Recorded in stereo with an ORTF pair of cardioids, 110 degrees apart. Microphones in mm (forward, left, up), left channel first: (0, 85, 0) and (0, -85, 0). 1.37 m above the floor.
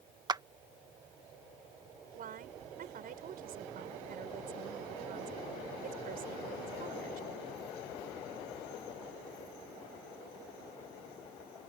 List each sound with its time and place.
0.3 s a clap: 25° right
2.2 s a woman speaking: 60° right